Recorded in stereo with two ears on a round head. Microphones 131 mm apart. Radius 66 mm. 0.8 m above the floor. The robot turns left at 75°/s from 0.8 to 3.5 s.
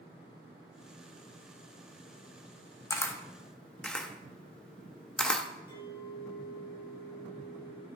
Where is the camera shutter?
20° left (ahead or behind), 0.6 m; by 5.5 s 5° left (ahead or behind), 0.6 m.